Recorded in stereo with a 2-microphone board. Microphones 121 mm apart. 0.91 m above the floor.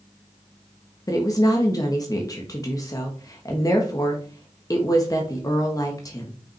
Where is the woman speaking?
30° left (ahead or behind), 1.2 m.